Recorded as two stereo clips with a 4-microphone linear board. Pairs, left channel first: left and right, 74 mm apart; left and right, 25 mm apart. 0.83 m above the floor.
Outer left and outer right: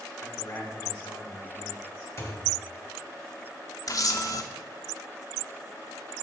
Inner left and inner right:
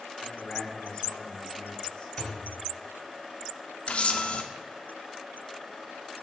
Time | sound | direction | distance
0.2 | a man speaking | 30° left (ahead or behind) | 2.5 m
2.2 | a thud | 40° left (ahead or behind) | 1.6 m
3.9 | a camera shutter | 50° left (ahead or behind) | 0.6 m